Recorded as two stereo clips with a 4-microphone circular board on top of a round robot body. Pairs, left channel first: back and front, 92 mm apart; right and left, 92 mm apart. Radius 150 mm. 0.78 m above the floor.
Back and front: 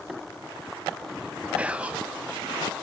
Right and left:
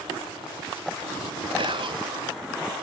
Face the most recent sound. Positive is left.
turn(degrees=75)